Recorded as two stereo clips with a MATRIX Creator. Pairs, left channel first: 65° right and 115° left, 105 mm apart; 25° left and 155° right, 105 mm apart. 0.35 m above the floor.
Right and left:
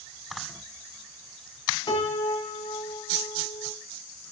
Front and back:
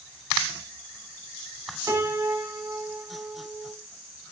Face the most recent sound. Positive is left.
turn(degrees=-100)